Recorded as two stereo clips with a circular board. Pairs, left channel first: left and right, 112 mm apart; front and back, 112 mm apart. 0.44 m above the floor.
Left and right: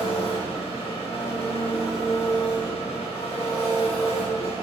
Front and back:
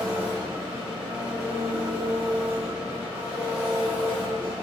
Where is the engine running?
105° left, 2.5 m.